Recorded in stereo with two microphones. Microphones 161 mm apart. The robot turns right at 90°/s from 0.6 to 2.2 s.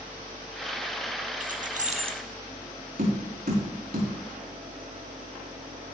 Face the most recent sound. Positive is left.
turn(degrees=-75)  # may be behind; listen again after turning